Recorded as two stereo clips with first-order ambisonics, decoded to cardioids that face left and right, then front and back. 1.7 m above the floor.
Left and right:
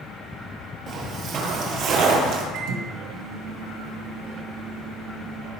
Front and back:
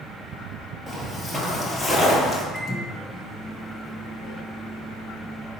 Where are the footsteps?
105° right, 2 m; by 2.4 s 80° right, 2.5 m.